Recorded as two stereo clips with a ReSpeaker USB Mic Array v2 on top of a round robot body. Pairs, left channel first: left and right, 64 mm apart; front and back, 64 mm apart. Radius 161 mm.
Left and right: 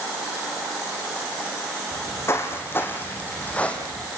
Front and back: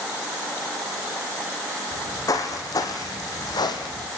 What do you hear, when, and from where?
1.9 s footsteps: 40° left, 3 m; by 4.1 s 10° left, 2.5 m